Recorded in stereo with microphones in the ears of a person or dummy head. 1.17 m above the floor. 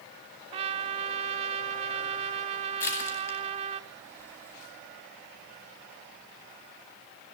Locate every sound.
0.5 s a trumpet: 25° right (ahead or behind), 0.9 m
2.8 s crushing: 15° left (ahead or behind), 10 m